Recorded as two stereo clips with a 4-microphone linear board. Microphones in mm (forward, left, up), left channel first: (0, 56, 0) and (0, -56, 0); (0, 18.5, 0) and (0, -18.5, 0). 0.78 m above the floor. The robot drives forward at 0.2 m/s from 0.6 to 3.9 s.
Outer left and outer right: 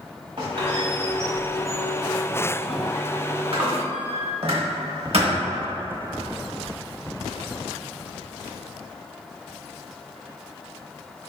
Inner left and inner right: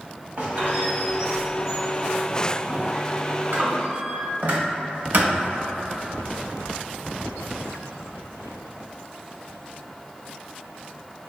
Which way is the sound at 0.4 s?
50° right (ahead or behind).